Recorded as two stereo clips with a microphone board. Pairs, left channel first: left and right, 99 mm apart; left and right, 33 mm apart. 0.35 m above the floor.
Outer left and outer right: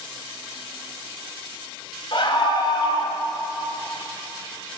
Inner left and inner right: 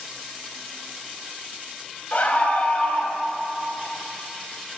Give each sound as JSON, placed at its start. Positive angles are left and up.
{"t": 2.1, "sound": "a scream", "side_deg": 55, "distance_m": 2.0}